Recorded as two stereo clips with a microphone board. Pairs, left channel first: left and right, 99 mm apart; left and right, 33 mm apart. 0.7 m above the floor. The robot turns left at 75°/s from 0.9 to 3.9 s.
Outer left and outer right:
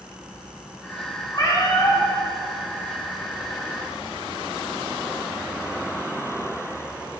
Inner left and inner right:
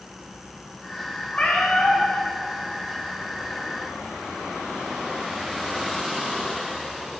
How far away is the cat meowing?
About 3.5 m.